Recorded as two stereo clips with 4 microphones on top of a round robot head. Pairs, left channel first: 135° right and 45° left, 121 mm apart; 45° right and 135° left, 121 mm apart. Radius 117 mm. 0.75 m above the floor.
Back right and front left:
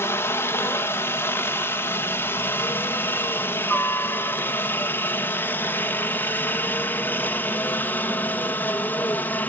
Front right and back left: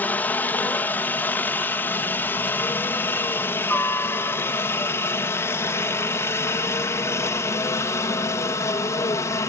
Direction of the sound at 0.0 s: 100° right.